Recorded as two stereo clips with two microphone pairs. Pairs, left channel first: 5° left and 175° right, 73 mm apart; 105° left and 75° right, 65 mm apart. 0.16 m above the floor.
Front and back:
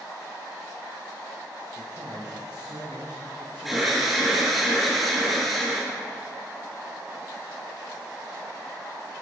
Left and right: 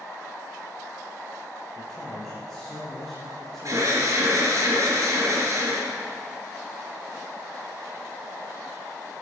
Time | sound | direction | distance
1.8 | a man speaking | 170° right | 3 m
3.6 | an alarm | 90° right | 4.5 m